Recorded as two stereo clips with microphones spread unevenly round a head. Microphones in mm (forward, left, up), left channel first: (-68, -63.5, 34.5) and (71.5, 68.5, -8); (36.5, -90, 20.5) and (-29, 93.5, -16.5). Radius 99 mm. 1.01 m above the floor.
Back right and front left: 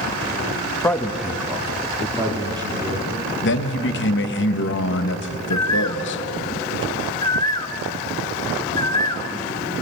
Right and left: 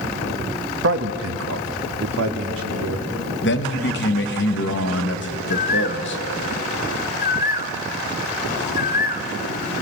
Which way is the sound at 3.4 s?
105° right.